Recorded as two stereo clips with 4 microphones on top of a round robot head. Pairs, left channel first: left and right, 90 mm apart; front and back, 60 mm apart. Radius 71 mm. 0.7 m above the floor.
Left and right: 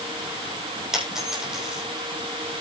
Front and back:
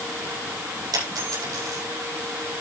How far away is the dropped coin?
About 8.5 m.